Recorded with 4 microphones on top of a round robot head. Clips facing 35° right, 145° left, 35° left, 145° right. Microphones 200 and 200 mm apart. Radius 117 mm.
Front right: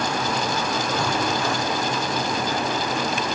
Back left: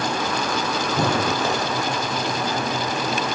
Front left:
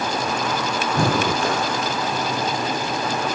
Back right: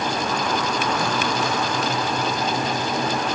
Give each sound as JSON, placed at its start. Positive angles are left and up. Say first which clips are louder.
{"t": 0.9, "sound": "breathing", "louder": "back left 5 dB, front left 3 dB", "azimuth_deg": 75}